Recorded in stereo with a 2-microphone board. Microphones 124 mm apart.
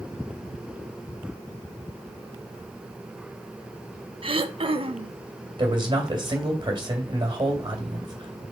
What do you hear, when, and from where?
4.2 s throat clearing: 45° right (ahead or behind), 0.6 m
5.6 s a man speaking: 40° right (ahead or behind), 2.0 m